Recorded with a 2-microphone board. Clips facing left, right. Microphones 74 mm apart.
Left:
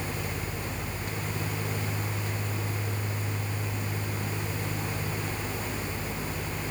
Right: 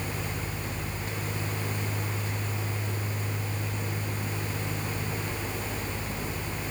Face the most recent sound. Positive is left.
No sound to turn to.